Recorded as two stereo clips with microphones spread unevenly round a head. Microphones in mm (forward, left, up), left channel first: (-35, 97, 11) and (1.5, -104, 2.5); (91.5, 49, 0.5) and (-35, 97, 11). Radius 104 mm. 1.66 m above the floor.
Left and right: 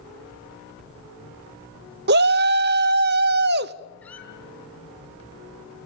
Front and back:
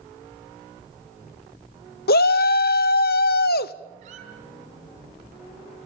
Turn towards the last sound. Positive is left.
turn(degrees=180)